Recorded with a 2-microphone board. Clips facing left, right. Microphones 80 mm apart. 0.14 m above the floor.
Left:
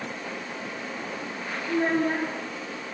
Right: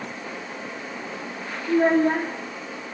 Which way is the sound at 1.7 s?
20° right (ahead or behind).